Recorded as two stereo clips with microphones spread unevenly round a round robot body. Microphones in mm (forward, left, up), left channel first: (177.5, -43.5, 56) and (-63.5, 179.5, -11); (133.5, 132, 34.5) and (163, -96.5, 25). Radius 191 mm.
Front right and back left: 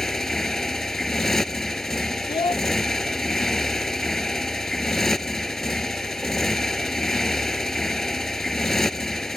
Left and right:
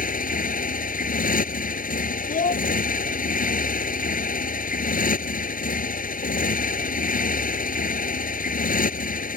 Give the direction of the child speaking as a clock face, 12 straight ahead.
11 o'clock.